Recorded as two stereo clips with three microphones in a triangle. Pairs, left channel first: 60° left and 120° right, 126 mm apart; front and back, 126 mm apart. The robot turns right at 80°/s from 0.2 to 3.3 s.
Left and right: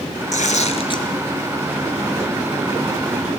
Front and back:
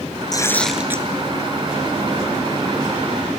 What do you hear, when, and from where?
0.3 s tearing paper: 60° left, 1.2 m; by 1.1 s 120° left, 1.2 m